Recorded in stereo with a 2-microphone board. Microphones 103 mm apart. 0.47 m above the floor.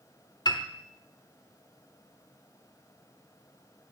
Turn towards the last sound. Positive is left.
turn(degrees=45)  # may be behind; listen again after turning